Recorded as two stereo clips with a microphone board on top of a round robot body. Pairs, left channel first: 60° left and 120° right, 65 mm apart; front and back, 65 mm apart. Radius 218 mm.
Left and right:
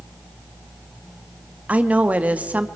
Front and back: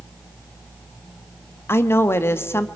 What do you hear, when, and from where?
1.7 s a woman speaking: 55° right, 1.2 m